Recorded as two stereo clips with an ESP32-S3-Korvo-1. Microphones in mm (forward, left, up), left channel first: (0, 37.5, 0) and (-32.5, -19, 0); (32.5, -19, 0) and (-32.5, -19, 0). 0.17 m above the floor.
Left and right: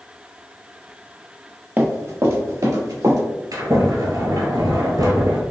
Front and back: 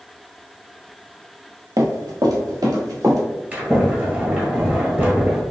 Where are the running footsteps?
175° left, 0.9 m; by 3.2 s 150° right, 2.5 m.